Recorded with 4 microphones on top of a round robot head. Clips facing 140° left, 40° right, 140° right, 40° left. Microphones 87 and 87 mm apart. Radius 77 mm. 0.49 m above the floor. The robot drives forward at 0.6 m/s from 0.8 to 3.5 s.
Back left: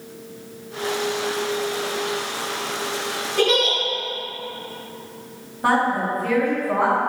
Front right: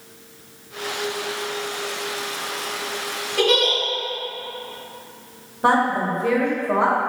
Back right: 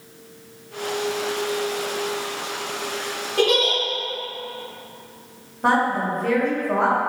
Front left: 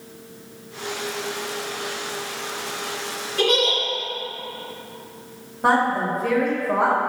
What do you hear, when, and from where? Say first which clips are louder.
3.4 s a giggle: even, back right 1 dB; 125° right, 1.9 m
5.6 s a woman speaking: front right 1 dB, front left 1 dB; 40° right, 1.2 m